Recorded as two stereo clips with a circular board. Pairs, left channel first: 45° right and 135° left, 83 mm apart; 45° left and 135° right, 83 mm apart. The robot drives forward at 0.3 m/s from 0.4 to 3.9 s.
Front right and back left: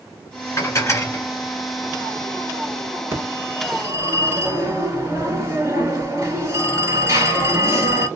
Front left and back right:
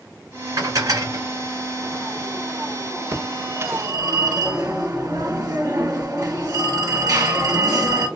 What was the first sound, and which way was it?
Dishes clattering, 90° right.